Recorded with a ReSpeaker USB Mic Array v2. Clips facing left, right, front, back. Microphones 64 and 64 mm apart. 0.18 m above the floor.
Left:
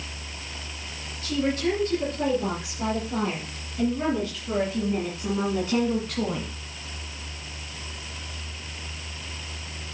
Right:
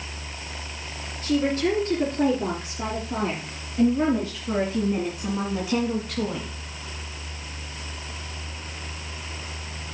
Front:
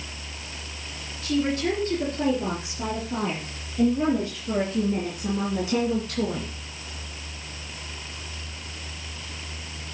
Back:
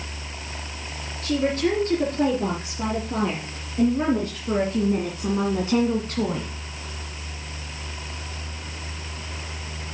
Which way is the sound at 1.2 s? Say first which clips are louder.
Right 3 dB, back 2 dB; 135° right.